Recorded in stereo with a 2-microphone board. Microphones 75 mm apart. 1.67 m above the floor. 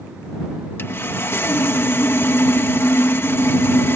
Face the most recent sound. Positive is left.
turn(degrees=35)  # may be behind; listen again after turning